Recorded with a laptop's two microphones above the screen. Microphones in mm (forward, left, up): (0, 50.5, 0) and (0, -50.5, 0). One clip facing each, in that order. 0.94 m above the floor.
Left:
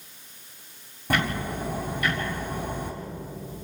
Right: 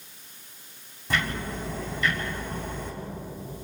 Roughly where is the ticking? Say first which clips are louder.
Left 3 dB; left.